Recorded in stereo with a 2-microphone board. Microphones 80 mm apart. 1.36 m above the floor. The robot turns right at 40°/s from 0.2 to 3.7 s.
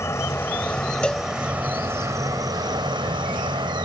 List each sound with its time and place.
0.0 s an insect: 145° left; by 3.9 s 75° right
1.0 s a cowbell: 15° left (ahead or behind); by 1.3 s 5° left (ahead or behind)